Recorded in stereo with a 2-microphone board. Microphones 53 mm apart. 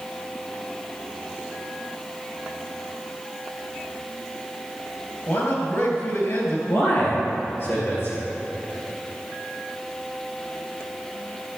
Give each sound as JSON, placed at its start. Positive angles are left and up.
{"t": 5.3, "sound": "a man speaking", "side_deg": 60, "distance_m": 3.0}
{"t": 6.7, "sound": "a man speaking", "side_deg": 50, "distance_m": 3.5}